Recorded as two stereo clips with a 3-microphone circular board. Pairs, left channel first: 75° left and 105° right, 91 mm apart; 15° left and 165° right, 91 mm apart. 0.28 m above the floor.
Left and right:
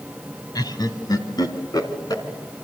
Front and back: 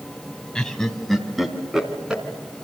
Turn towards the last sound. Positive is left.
turn(degrees=115)